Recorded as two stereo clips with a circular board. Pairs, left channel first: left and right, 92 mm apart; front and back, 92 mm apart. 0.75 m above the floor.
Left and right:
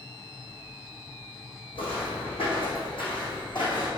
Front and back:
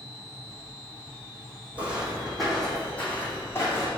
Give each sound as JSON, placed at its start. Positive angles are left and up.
{"t": 1.8, "sound": "footsteps", "azimuth_deg": 105, "distance_m": 2.5}